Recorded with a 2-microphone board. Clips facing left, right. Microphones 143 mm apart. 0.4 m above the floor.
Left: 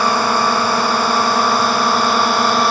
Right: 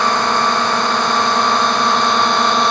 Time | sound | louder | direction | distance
0.0 | a drone | even | 10° left (ahead or behind) | ?